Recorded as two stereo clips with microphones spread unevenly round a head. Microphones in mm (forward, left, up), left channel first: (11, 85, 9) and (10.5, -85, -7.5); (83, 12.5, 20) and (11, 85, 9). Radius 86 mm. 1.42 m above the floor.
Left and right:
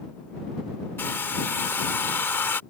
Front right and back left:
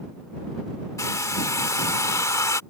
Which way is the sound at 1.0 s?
15° left.